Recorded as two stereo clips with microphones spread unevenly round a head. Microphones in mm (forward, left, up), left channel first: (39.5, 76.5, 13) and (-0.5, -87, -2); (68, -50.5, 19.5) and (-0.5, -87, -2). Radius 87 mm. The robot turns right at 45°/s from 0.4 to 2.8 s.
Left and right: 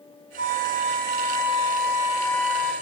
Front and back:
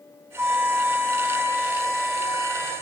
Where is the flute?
70° right, 4.5 m; by 2.7 s 35° left, 4.5 m.